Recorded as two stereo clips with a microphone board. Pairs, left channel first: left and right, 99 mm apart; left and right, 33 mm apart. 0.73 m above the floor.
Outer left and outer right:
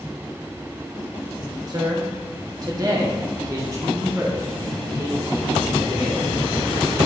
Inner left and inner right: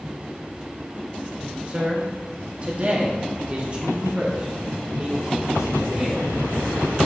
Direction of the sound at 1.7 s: 40° right (ahead or behind).